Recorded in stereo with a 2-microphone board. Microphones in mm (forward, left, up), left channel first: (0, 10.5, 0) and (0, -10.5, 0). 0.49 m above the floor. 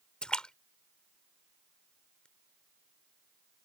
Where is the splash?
45° left (ahead or behind).